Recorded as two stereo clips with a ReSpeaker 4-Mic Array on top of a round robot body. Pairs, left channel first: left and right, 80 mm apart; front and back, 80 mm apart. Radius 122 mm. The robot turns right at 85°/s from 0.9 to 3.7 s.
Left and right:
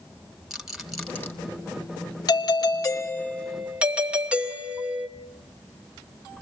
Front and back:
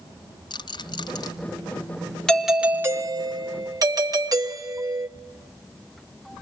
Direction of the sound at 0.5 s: 5° right.